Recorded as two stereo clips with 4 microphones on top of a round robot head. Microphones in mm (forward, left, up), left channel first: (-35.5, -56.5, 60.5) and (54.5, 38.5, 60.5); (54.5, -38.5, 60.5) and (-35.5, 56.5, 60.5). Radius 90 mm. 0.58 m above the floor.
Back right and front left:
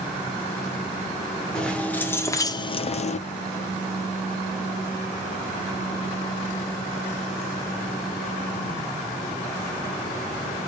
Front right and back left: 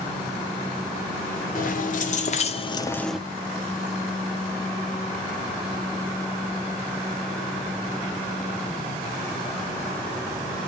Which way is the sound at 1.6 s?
50° right.